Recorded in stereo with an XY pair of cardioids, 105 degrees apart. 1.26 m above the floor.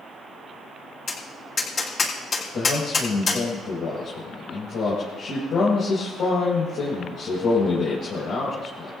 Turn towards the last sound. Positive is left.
turn(degrees=65)